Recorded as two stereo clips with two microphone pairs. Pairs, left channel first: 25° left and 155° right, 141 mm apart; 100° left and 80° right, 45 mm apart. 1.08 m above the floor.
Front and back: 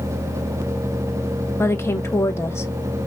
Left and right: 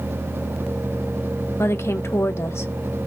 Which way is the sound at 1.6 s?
100° left.